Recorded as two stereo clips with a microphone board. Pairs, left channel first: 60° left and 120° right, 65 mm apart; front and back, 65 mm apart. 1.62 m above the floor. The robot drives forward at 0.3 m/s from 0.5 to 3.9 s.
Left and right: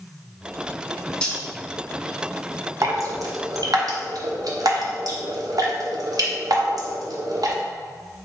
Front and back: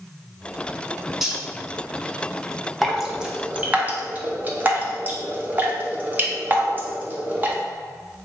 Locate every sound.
1.2 s cutlery clinking: 105° left, 0.8 m; by 1.4 s 115° left, 0.8 m
2.8 s dripping: 90° right, 0.7 m; by 7.6 s 120° right, 0.7 m